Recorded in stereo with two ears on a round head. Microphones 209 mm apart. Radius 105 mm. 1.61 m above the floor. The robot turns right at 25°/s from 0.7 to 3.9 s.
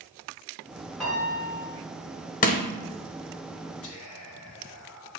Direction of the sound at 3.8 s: 60° left (ahead or behind).